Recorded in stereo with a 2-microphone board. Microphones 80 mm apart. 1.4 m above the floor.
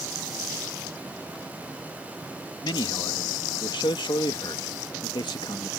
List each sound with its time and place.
2.6 s a man speaking: 80° left